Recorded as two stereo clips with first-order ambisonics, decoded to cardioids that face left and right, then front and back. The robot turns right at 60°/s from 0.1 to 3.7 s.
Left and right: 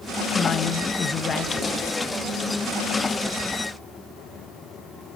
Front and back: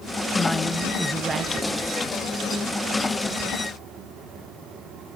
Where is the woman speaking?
65° left, 0.8 m; by 1.9 s 155° left, 0.8 m.